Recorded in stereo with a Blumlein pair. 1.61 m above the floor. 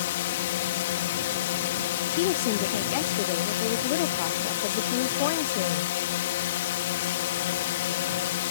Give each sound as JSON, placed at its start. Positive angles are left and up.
{"t": 0.0, "sound": "a drone", "azimuth_deg": 55}
{"t": 2.1, "sound": "a woman speaking", "azimuth_deg": 45}